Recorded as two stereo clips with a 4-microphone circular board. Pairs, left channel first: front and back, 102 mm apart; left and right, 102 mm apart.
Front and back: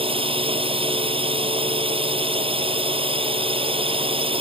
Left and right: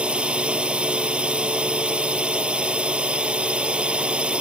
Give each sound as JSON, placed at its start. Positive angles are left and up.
{"t": 0.0, "sound": "a drone", "azimuth_deg": -170}